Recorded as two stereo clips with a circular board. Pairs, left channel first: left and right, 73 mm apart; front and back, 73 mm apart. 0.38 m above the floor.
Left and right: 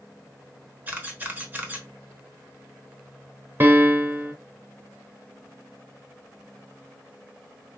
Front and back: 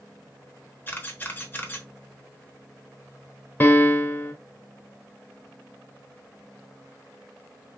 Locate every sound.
0.9 s a camera shutter: 45° right, 1.1 m
3.6 s a piano: 45° right, 0.9 m